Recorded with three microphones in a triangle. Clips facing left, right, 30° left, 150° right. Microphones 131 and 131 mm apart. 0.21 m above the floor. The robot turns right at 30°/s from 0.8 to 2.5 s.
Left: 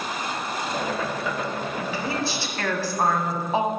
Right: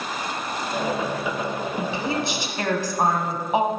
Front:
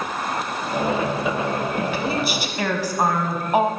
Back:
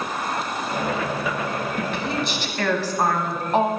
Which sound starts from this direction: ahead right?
A woman speaking, at 1.8 s.